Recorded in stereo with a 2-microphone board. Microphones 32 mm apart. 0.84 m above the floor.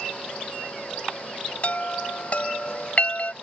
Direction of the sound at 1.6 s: 45° left (ahead or behind).